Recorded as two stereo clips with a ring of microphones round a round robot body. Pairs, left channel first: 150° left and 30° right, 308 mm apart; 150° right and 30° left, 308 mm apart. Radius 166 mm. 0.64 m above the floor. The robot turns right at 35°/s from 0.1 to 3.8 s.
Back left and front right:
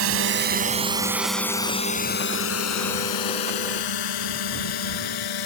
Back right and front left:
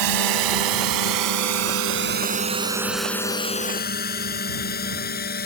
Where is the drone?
15° left; by 5.5 s 150° left.